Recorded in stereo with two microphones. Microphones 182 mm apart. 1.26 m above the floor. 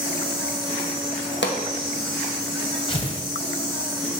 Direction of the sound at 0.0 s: 30° left (ahead or behind).